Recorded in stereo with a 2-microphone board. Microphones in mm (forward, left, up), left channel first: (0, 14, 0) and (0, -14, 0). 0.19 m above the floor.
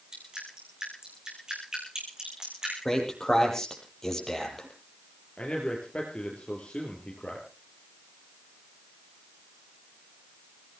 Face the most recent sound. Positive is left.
turn(degrees=40)  # may be behind; listen again after turning